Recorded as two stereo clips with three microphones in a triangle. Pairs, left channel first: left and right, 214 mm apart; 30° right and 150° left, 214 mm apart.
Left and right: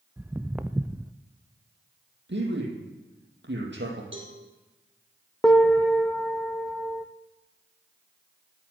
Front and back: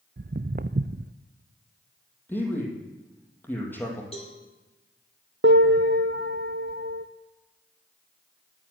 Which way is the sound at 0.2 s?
170° right.